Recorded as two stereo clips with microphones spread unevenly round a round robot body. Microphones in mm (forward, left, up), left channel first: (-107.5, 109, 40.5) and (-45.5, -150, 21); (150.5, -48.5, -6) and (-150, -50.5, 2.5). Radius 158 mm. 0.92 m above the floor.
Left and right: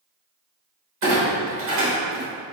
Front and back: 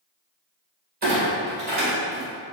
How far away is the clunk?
About 1.7 m.